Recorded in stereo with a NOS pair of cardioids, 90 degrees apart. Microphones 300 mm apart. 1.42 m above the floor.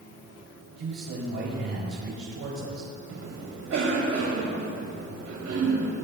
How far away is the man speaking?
About 3 m.